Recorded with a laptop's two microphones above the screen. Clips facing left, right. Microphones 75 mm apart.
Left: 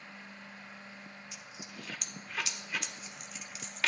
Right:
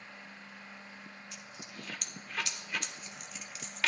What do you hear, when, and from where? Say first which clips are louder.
1.3 s a dropped coin: even; centre (ahead or behind), 0.6 m